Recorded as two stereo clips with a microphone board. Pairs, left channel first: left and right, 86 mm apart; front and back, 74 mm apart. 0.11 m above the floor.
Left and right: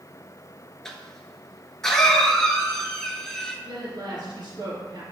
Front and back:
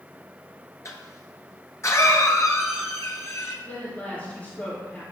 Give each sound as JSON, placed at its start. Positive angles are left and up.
{"t": 0.8, "sound": "a cough", "azimuth_deg": 10, "distance_m": 1.4}
{"t": 3.6, "sound": "a woman speaking", "azimuth_deg": -70, "distance_m": 3.0}